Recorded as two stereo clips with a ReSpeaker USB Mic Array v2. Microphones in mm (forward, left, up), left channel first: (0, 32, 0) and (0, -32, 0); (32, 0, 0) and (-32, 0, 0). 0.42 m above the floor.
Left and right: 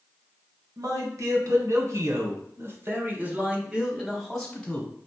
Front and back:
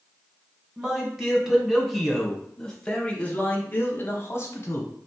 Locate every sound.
0.8 s a man speaking: 105° right, 1.7 m; by 4.9 s 15° left, 1.2 m